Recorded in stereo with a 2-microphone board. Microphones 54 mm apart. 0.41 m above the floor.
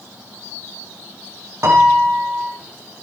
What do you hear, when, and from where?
1.6 s a piano: 65° right (ahead or behind), 6.5 m